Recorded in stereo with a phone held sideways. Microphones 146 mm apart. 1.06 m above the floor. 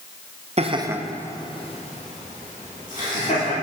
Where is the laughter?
45° right (ahead or behind), 0.9 m; by 3.5 s 65° left (ahead or behind), 3.5 m.